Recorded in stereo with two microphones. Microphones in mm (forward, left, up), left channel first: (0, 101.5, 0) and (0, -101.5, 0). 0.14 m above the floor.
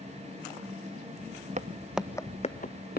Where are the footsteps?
35° right (ahead or behind), 0.6 m; by 3.0 s 55° left (ahead or behind), 1.0 m.